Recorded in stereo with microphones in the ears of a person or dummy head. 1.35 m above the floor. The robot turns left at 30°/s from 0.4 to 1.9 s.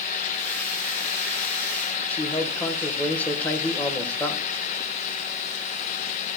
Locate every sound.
2.1 s a man speaking: 15° left (ahead or behind), 1.5 m